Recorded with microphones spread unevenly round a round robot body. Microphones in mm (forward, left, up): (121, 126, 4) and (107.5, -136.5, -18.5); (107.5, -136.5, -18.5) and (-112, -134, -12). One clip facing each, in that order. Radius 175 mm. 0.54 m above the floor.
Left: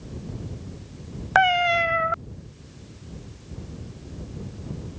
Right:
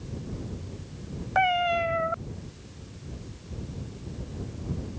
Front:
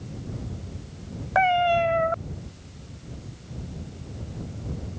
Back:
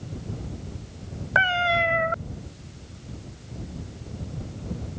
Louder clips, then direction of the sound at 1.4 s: Left 3 dB, front 5 dB; 105° left.